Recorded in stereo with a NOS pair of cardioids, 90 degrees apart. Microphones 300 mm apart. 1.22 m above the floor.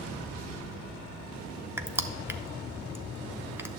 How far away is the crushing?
About 0.6 m.